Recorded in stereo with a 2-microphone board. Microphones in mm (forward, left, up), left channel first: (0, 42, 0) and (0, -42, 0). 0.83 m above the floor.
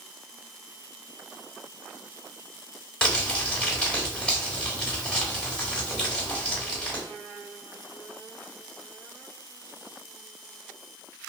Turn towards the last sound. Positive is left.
turn(degrees=10)  # may be behind; listen again after turning